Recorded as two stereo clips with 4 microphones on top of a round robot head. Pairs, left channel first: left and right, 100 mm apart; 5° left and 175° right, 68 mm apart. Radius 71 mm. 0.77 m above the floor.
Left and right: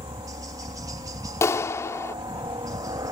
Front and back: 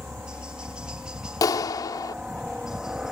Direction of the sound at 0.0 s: 110° right.